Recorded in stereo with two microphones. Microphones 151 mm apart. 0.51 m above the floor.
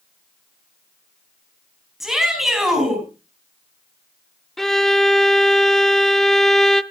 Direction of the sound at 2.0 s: Centre (ahead or behind).